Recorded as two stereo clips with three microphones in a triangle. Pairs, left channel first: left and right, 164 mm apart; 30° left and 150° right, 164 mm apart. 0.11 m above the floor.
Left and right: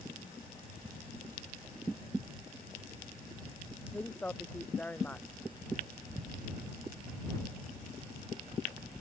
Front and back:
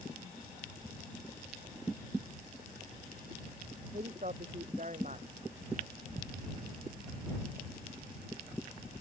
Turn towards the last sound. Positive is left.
turn(degrees=170)